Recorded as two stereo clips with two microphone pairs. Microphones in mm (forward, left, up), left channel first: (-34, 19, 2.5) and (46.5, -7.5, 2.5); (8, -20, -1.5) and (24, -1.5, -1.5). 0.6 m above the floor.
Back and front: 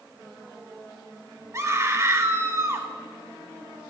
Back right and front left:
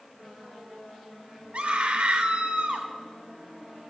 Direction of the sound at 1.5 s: 35° left.